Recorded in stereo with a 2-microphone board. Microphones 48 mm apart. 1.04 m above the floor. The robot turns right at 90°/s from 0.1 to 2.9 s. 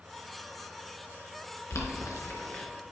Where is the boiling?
70° left (ahead or behind), 3 m; by 2.6 s 20° left (ahead or behind), 3 m.